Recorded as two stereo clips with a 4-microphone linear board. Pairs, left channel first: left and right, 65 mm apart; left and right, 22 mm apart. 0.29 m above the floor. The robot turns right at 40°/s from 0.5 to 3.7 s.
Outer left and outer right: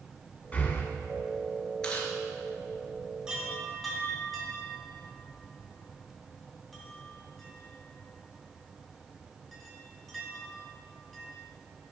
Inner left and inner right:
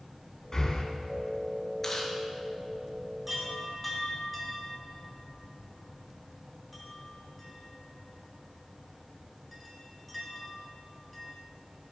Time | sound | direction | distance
0.5 | breathing | 25° left (ahead or behind) | 1.9 m
1.8 | chewing | 10° left (ahead or behind) | 2.0 m
3.3 | a chime | 15° right (ahead or behind) | 2.5 m